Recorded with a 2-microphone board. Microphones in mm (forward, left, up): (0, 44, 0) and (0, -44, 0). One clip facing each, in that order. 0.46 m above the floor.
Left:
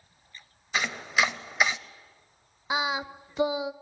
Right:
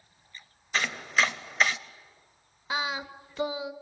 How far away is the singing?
About 0.8 m.